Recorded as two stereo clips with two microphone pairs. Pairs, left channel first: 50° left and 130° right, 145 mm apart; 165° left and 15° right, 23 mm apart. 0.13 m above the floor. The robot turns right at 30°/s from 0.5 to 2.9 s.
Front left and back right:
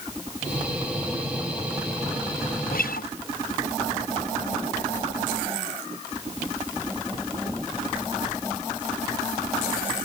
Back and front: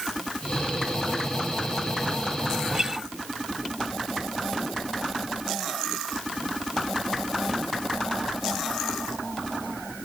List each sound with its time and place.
2.6 s a guitar: 45° left; by 3.1 s 55° left